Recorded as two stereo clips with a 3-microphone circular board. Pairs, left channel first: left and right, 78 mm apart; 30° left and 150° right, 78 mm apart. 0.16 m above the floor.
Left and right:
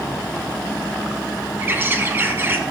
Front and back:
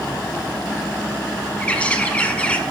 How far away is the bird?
About 0.8 m.